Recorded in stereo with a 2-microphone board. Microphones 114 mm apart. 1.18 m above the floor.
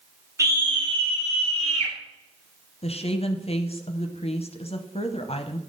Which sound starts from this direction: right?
A scream, at 0.4 s.